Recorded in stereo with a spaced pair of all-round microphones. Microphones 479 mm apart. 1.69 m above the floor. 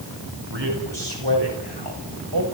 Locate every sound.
0.5 s a man speaking: 70° right (ahead or behind), 9.5 m; by 2.4 s 60° right (ahead or behind), 7 m